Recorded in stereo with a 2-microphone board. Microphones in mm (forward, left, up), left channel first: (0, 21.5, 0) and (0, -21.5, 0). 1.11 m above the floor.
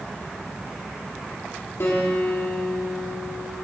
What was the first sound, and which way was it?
A guitar, 70° left (ahead or behind).